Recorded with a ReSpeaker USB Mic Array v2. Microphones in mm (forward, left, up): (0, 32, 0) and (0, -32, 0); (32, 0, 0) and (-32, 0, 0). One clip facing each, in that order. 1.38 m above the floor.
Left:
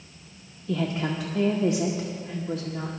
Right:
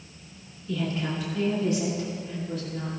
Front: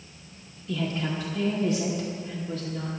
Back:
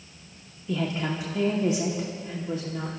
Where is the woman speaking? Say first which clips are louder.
Left 2 dB, back 1 dB; 115° left, 1.2 m.